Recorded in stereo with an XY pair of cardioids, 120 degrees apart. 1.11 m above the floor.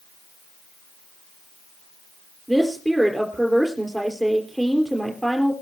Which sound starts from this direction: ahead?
A woman speaking, at 2.5 s.